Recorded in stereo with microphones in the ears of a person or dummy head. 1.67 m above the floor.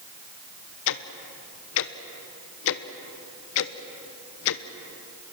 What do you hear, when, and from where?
0.9 s ticking: 65° left (ahead or behind), 0.8 m